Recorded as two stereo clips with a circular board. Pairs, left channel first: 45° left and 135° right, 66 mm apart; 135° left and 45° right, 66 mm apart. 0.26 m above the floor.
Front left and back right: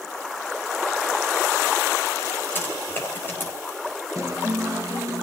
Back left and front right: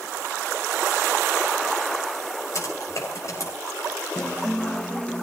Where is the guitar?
160° right, 1.8 m.